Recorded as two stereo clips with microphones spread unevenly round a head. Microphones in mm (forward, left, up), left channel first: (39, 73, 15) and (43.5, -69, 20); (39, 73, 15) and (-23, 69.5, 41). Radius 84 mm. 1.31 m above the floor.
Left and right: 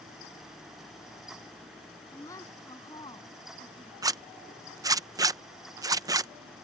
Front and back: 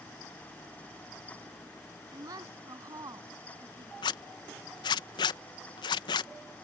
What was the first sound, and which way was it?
A woman speaking, 165° left.